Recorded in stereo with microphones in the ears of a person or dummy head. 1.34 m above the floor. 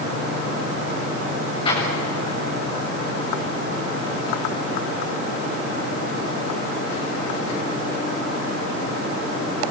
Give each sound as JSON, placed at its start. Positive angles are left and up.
{"t": 1.6, "sound": "an explosion", "side_deg": 30, "distance_m": 8.0}